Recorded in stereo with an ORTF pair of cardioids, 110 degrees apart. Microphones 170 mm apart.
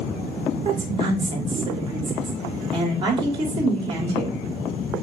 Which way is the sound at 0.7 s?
30° right.